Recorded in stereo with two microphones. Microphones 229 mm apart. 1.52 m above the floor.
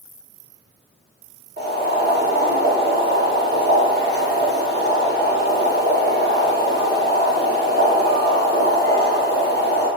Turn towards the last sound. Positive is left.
turn(degrees=-45)  # may be behind; listen again after turning